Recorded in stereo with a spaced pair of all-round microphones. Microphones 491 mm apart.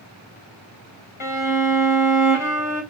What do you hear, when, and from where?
1.2 s a violin: 75° left (ahead or behind), 2.5 m